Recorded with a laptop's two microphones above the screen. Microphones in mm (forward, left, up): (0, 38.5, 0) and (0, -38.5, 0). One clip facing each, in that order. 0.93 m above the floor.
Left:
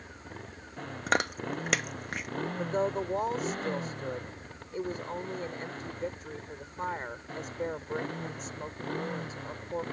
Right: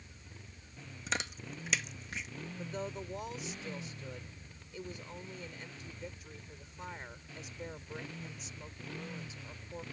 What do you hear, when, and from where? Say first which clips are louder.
0.0 s a motorcycle: left 11 dB; 70° left (ahead or behind); by 9.9 s 60° left (ahead or behind)
1.1 s chewing: left 10 dB; 65° left (ahead or behind)
2.6 s a woman speaking: left 11 dB; 55° left (ahead or behind)